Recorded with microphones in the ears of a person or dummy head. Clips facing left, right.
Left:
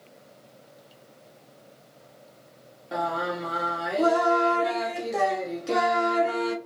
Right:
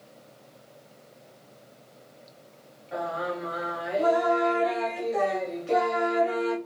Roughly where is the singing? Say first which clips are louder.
Left 2 dB; left.